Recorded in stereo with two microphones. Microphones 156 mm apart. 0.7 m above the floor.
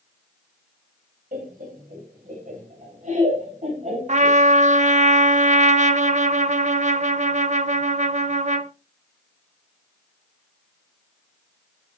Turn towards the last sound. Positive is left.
turn(degrees=-50)  # may be behind; listen again after turning